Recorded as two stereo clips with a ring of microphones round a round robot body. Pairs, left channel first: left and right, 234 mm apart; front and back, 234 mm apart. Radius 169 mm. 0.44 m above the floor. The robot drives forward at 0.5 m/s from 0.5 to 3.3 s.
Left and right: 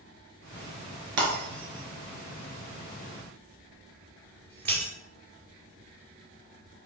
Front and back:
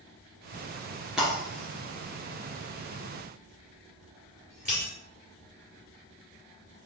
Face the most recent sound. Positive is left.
turn(degrees=-110)